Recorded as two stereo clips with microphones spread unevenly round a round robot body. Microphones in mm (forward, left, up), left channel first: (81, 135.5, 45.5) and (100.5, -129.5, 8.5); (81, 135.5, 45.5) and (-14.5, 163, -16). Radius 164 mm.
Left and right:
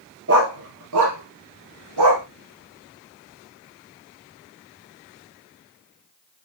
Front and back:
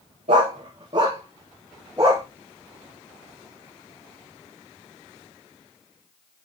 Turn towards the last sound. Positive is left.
turn(degrees=-110)